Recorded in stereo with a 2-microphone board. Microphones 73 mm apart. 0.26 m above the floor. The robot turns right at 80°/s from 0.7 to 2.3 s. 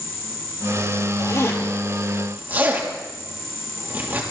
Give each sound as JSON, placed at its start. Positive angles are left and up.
{"t": 1.2, "sound": "a zipper", "side_deg": 60, "distance_m": 3.5}